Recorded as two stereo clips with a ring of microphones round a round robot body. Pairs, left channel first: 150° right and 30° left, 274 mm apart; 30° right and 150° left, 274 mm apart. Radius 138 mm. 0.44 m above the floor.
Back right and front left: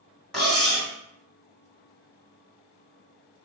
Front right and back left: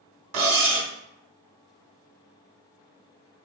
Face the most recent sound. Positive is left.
turn(degrees=125)